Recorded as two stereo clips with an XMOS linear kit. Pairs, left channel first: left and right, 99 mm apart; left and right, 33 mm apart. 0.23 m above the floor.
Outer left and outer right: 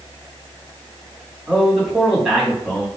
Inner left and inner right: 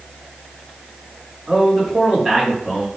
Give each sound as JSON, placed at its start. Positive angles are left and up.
{"t": 1.5, "sound": "a man speaking", "side_deg": 0, "distance_m": 2.0}